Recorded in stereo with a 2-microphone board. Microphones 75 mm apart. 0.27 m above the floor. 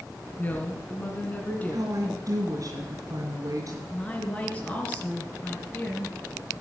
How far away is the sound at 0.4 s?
About 3.5 m.